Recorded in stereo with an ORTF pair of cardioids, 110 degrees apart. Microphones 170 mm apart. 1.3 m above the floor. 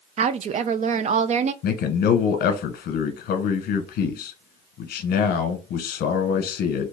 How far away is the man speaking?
About 1.0 m.